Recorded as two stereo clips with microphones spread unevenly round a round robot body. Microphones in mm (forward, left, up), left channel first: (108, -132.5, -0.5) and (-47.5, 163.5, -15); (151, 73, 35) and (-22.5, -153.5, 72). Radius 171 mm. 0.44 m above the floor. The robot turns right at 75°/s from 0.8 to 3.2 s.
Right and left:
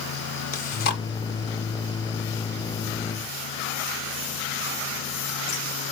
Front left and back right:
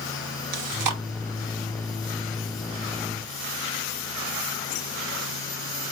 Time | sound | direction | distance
0.5 | chewing | 130° right | 0.8 m